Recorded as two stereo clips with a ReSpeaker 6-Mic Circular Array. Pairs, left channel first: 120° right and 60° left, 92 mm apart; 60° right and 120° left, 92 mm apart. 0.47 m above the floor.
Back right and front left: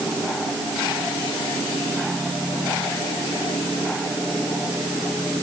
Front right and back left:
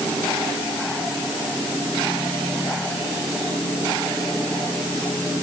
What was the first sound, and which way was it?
Only background noise.